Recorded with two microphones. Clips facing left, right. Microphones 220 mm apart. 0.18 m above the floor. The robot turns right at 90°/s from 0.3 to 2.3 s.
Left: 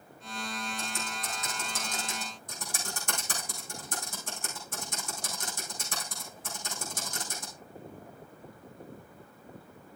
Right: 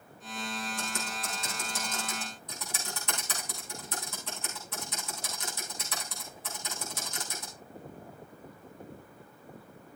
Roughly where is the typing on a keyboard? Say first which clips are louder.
Right 1 dB; right.